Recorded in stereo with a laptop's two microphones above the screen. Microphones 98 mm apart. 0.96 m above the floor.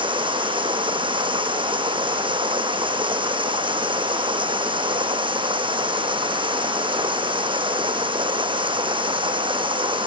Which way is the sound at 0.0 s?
60° right (ahead or behind).